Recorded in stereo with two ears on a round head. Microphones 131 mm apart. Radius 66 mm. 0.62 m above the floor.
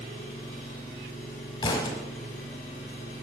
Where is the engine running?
65° left (ahead or behind), 3.5 m.